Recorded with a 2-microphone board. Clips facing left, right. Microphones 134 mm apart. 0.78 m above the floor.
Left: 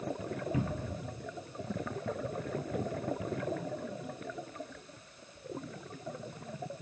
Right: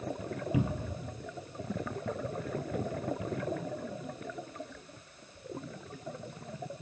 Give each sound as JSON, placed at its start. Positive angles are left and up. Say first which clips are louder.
{"t": 0.5, "sound": "a cupboard door", "louder": "right 2 dB", "side_deg": -15, "distance_m": 0.9}